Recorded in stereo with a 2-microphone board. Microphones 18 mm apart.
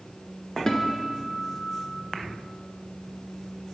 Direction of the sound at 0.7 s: 30° left (ahead or behind).